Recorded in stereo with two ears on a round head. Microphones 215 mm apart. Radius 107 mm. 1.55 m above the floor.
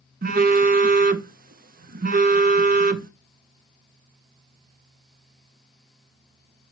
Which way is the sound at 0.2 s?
35° right (ahead or behind).